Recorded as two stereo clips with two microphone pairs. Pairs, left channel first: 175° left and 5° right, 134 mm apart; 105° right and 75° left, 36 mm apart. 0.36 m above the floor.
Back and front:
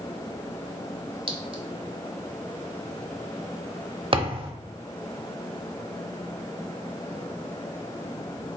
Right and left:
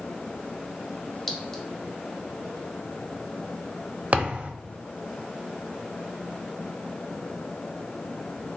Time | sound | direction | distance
1.3 | a clink | 30° right | 0.7 m
4.1 | a thud | 30° left | 0.5 m